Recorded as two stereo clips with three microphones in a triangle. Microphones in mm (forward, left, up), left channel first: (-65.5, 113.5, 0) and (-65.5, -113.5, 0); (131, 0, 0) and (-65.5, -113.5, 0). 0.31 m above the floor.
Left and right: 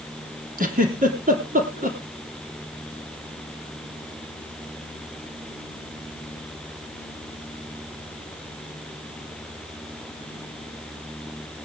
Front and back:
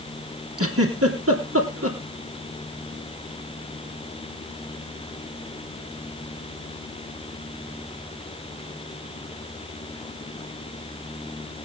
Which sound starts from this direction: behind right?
A giggle, at 0.6 s.